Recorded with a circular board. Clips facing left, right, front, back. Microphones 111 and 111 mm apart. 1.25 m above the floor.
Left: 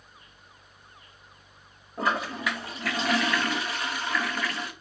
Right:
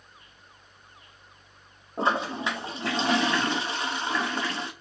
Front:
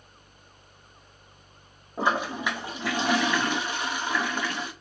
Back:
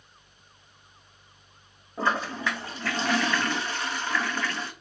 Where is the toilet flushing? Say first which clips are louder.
Right 2 dB, front 1 dB; 60° right, 0.6 m.